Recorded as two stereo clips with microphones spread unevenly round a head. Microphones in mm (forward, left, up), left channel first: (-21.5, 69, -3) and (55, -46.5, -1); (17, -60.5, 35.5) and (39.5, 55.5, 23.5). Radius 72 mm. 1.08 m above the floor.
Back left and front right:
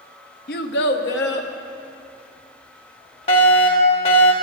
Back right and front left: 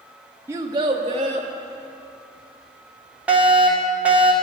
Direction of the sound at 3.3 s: 150° left.